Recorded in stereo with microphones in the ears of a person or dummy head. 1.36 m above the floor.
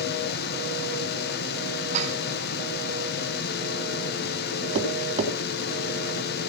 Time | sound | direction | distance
0.0 | a fan | 50° left (ahead or behind) | 1.8 m
1.9 | dishes clattering | 40° right (ahead or behind) | 3.5 m
4.8 | tapping | 35° right (ahead or behind) | 2.5 m